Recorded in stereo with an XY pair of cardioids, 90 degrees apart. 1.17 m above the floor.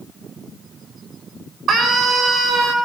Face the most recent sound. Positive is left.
turn(degrees=-70)